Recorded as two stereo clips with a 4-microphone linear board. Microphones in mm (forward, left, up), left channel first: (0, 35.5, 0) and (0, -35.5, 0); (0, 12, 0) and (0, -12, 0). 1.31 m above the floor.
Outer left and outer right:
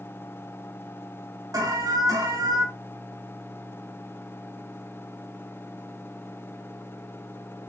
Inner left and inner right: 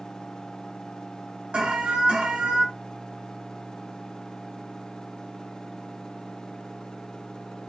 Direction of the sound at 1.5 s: 55° right (ahead or behind).